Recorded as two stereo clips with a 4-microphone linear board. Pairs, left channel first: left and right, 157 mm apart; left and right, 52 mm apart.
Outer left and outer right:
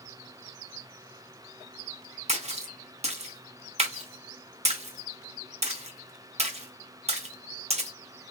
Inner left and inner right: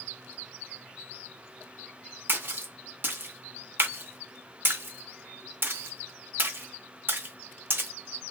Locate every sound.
2.3 s a splash: 45° right (ahead or behind), 0.6 m